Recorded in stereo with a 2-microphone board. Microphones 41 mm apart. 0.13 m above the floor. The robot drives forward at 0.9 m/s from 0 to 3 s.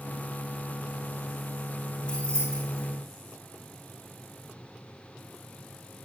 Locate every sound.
2.1 s keys jangling: 25° left (ahead or behind), 6 m